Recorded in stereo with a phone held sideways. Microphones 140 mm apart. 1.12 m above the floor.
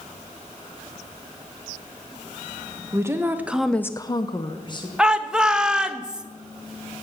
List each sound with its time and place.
2.9 s a woman speaking: 20° right (ahead or behind), 1.5 m; by 4.9 s 30° left (ahead or behind), 1.7 m
5.0 s a shout: 5° right (ahead or behind), 1.3 m